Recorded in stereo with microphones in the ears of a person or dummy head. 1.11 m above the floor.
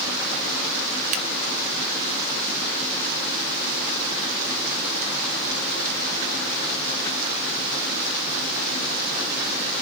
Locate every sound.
1.1 s scissors: 40° right (ahead or behind), 1.3 m